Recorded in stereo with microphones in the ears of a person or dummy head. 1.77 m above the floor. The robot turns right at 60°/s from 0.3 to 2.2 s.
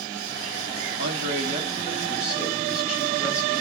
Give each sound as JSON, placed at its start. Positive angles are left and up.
{"t": 1.0, "sound": "a man speaking", "azimuth_deg": -75, "distance_m": 4.5}